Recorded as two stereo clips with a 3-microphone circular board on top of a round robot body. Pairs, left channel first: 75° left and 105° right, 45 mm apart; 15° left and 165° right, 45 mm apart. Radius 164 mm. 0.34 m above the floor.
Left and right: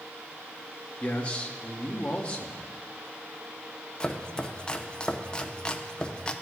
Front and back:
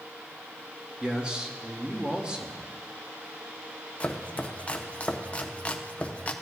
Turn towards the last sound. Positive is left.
turn(degrees=25)